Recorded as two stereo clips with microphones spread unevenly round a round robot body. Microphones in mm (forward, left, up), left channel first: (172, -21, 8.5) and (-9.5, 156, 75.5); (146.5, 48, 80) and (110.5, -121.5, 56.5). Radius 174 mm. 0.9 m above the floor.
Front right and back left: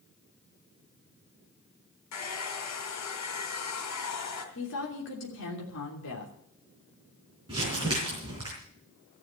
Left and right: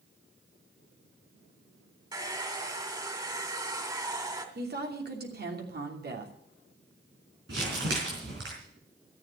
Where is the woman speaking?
85° right, 3 m.